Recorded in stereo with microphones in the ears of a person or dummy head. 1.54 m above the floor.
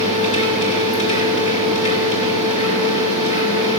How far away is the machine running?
About 2.5 m.